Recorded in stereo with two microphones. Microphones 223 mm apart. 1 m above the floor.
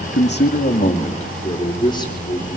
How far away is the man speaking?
About 2 m.